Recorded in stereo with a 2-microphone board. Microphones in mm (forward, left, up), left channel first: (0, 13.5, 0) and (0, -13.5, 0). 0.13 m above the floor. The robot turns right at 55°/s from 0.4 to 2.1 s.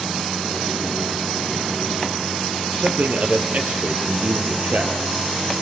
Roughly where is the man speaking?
Right.